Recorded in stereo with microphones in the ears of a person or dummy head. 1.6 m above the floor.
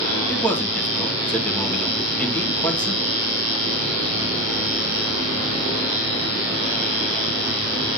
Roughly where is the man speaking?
Centre.